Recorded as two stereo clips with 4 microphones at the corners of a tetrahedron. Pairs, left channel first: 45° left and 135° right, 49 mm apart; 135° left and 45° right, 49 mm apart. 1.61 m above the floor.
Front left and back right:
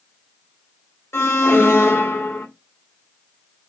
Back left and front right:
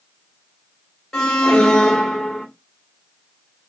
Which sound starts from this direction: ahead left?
An alarm, at 1.1 s.